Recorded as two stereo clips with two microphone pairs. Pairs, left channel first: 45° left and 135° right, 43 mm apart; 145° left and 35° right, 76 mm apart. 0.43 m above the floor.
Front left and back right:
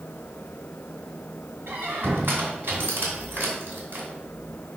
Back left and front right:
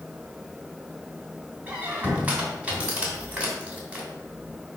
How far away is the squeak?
About 2.5 m.